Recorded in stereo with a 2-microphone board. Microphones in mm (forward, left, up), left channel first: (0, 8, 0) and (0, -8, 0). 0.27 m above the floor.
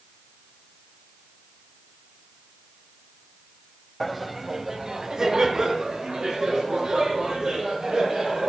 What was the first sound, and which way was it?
Laughter, 10° left (ahead or behind).